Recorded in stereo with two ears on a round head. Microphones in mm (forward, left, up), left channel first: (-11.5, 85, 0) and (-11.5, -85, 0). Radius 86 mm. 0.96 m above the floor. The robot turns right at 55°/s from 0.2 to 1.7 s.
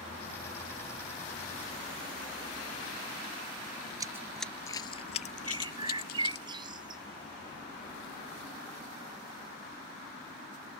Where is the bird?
25° right (ahead or behind).